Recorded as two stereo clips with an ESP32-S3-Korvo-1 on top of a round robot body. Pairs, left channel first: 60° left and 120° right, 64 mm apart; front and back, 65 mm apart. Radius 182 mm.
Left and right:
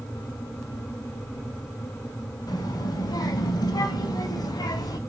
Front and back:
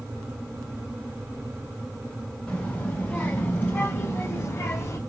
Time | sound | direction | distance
2.5 | a child speaking | 80° left | 3.5 m